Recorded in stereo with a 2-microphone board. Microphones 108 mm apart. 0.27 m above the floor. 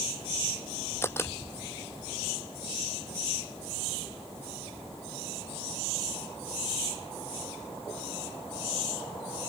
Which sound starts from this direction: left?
A camera shutter, at 1.0 s.